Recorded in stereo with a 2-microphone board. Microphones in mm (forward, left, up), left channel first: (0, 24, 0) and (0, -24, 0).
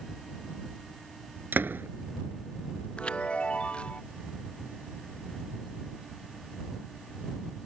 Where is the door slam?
50° right (ahead or behind).